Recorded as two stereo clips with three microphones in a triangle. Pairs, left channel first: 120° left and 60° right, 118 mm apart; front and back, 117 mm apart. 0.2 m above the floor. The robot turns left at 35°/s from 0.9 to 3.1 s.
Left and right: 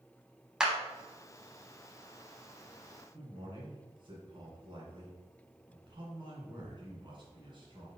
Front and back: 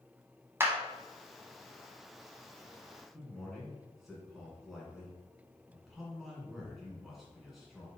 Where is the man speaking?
90° right, 1.9 m.